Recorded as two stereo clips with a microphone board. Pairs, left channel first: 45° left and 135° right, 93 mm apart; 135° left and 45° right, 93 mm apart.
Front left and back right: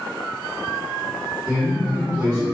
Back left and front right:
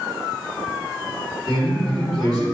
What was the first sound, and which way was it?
A man speaking, 135° right.